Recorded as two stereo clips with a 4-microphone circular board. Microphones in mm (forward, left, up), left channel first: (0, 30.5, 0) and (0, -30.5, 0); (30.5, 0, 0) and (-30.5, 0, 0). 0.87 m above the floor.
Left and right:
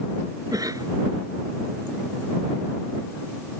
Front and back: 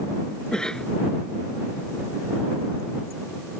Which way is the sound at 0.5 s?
80° right.